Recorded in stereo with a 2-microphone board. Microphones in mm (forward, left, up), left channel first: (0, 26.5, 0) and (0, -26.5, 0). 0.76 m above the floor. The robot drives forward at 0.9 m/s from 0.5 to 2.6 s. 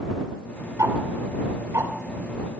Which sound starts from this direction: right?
Ticking, at 0.8 s.